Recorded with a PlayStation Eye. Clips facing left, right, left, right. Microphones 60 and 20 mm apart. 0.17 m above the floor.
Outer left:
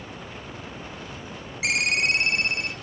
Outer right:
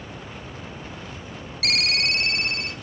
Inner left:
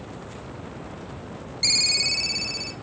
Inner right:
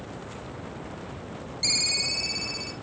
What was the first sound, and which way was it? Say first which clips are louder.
A ringtone: outer left 1 dB, inner left 4 dB; 20° left (ahead or behind).